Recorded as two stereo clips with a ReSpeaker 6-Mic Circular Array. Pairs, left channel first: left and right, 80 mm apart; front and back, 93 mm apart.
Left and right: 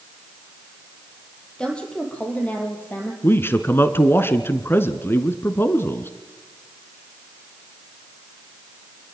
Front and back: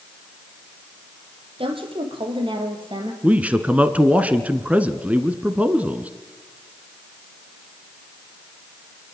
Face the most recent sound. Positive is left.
turn(degrees=115)